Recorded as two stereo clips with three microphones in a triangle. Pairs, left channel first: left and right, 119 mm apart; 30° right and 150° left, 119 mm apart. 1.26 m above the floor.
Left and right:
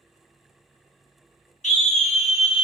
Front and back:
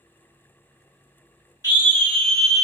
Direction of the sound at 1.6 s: 95° left.